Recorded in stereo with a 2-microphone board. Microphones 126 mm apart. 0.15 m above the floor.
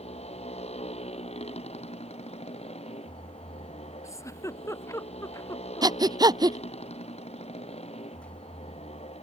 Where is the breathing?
35° right (ahead or behind).